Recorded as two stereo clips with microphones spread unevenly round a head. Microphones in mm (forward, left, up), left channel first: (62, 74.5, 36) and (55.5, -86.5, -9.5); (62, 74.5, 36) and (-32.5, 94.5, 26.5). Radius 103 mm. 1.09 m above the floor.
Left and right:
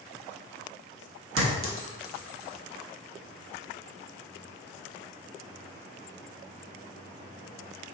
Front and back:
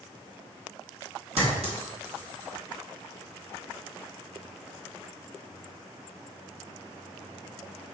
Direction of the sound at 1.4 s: 130° right.